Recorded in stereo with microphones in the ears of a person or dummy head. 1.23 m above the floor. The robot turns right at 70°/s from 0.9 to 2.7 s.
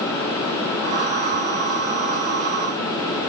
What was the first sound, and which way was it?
Only background noise.